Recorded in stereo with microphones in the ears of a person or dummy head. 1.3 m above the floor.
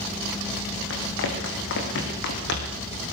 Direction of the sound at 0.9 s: 75° left (ahead or behind).